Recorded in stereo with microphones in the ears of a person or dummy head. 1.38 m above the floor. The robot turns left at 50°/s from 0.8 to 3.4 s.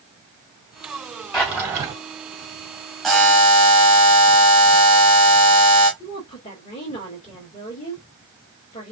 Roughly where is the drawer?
Centre.